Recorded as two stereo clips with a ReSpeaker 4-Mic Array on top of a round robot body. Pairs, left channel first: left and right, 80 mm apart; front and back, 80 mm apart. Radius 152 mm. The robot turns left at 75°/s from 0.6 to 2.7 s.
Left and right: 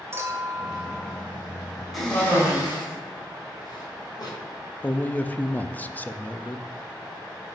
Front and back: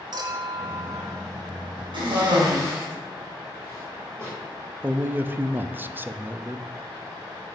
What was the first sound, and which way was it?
A clink, 150° right.